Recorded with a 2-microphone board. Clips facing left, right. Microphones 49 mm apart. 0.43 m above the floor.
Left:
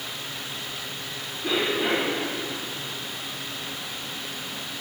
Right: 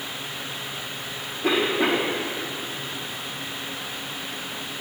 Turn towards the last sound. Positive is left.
turn(degrees=-60)  # may be behind; listen again after turning